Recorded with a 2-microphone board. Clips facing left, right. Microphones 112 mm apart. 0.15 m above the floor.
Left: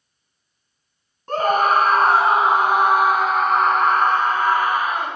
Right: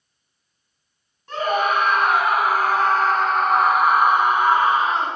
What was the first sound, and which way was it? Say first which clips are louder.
A scream: left 3 dB; 45° left (ahead or behind).